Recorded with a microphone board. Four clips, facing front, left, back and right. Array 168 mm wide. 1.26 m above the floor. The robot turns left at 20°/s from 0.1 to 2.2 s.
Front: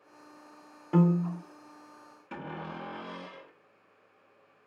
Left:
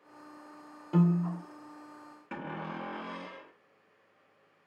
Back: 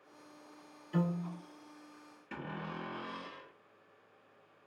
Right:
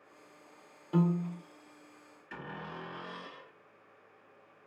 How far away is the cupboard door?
About 1.4 m.